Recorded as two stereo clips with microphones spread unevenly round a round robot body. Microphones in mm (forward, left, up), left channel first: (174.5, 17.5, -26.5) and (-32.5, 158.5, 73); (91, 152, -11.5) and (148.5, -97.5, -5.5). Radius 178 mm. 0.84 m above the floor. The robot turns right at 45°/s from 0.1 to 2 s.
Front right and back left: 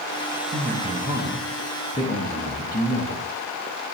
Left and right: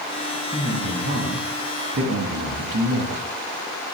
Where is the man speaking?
145° right, 1.3 m; by 3.2 s 80° right, 1.3 m.